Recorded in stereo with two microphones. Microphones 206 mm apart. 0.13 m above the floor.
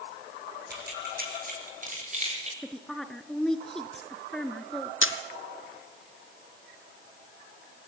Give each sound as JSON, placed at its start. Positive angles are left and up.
{"t": 0.7, "sound": "keys jangling", "side_deg": -50, "distance_m": 5.0}
{"t": 2.6, "sound": "a woman speaking", "side_deg": 5, "distance_m": 2.0}
{"t": 5.0, "sound": "a camera shutter", "side_deg": 80, "distance_m": 1.5}